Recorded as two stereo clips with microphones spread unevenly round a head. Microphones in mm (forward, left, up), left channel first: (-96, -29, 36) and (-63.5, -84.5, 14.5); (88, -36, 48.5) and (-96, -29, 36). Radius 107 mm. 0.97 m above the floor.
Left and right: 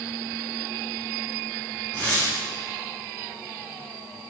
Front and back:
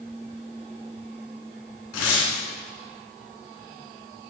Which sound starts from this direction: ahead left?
Tearing paper, at 1.9 s.